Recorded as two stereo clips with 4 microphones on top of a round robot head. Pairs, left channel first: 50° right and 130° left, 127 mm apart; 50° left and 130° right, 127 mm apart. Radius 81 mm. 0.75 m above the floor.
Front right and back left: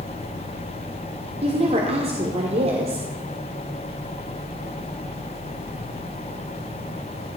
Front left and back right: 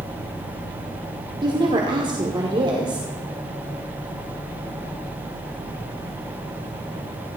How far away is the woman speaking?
About 1.8 m.